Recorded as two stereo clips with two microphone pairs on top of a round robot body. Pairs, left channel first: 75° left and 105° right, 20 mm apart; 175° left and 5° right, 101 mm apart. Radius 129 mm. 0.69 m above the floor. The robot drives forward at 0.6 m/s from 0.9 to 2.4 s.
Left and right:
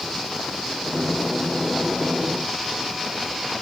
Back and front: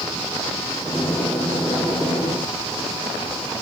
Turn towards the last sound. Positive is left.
No sound to turn to.